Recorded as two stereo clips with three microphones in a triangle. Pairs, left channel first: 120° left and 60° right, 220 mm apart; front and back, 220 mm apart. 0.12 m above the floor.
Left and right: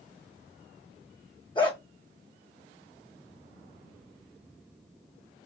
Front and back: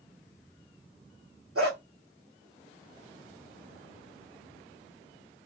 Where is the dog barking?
170° right, 1.5 m.